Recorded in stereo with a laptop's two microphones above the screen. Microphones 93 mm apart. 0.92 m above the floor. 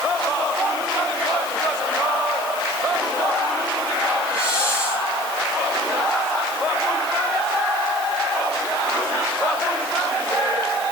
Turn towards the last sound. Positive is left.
turn(degrees=30)  # may be behind; listen again after turning